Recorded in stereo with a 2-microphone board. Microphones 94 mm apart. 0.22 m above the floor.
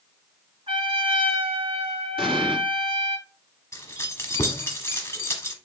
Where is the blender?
I don't hear a blender.